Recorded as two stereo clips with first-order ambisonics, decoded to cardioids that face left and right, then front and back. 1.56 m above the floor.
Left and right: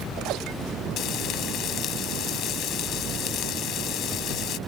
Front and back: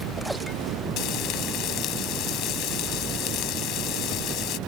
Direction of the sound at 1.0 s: 40° left.